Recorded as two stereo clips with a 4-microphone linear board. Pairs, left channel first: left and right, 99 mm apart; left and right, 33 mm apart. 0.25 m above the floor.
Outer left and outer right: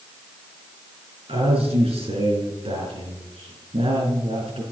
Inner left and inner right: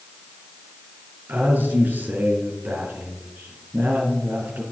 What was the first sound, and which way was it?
A man speaking, 75° right (ahead or behind).